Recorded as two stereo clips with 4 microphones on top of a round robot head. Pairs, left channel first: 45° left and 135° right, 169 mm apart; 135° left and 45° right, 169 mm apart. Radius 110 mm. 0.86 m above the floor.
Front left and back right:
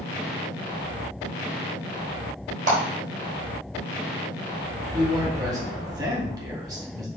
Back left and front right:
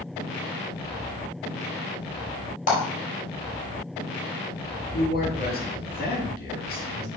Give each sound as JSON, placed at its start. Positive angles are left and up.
{"t": 2.7, "sound": "a clap", "azimuth_deg": 180, "distance_m": 3.5}
{"t": 4.9, "sound": "a man speaking", "azimuth_deg": 160, "distance_m": 2.5}